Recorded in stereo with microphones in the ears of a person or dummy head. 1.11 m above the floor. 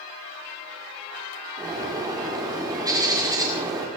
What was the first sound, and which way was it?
A bird, 15° right (ahead or behind).